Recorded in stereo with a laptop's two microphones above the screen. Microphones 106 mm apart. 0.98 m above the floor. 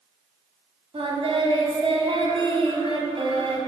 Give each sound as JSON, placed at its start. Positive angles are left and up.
{"t": 0.9, "sound": "singing", "side_deg": -55, "distance_m": 2.5}